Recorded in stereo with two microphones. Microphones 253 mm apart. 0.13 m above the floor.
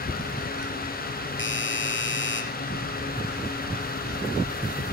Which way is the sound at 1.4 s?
50° left (ahead or behind).